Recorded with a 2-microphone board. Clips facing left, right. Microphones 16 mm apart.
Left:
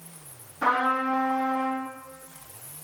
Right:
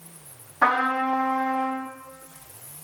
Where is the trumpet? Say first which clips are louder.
Right 2 dB; 75° right (ahead or behind), 3 m.